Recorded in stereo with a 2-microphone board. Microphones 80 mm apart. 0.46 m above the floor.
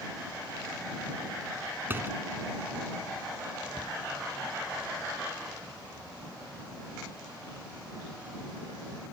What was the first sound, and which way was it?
A door slam, 25° right (ahead or behind).